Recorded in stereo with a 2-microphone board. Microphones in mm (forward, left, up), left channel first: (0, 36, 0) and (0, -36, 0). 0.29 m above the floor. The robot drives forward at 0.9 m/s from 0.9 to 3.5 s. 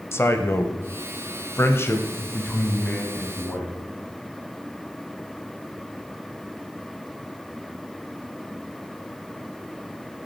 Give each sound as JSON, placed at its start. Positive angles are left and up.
{"t": 0.1, "sound": "a man speaking", "side_deg": 35, "distance_m": 1.1}